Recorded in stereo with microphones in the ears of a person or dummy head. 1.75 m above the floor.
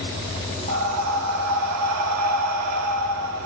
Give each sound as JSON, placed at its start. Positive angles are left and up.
{"t": 0.7, "sound": "breathing", "side_deg": -75, "distance_m": 0.8}